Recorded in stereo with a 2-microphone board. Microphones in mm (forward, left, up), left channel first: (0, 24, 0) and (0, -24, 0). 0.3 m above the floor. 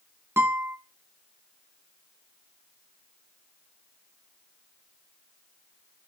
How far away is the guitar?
About 2 m.